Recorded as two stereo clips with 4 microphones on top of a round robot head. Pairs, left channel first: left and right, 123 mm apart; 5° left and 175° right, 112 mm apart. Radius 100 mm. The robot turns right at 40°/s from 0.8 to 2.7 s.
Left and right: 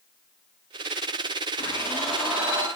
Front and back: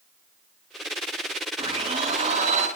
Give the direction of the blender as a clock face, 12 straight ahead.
7 o'clock.